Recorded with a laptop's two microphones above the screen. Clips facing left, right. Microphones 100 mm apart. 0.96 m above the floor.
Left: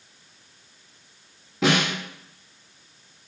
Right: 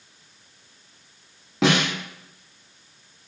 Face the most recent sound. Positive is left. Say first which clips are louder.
# right 1 dB
turn(degrees=-80)